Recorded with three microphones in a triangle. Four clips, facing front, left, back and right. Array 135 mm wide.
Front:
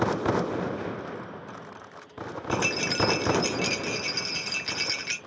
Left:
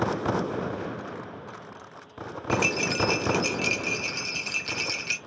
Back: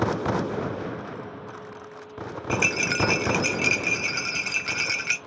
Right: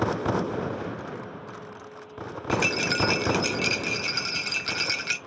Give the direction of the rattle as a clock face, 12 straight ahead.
4 o'clock.